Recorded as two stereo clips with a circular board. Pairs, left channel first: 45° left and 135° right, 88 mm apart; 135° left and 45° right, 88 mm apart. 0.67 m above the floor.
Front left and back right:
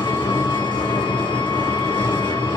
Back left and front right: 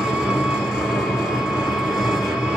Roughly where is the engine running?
Ahead left.